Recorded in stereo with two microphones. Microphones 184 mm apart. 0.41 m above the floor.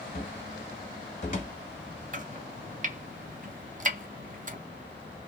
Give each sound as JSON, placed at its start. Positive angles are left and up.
{"t": 0.1, "sound": "a cupboard door", "side_deg": 40, "distance_m": 1.3}
{"t": 2.1, "sound": "chopping", "side_deg": -45, "distance_m": 0.5}